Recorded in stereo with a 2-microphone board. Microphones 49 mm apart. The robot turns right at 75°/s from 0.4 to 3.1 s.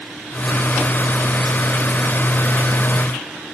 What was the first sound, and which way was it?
Only background noise.